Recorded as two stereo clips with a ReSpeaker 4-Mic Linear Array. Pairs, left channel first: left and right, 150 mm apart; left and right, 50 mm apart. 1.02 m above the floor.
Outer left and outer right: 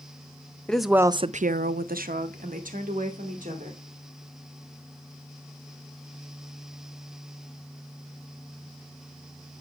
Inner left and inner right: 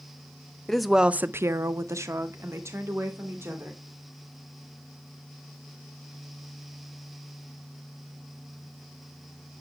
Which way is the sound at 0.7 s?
5° left (ahead or behind).